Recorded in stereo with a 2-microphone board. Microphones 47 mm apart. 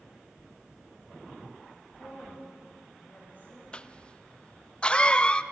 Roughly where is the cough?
Left.